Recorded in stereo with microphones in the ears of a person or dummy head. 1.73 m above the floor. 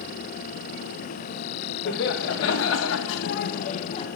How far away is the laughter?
About 1.1 m.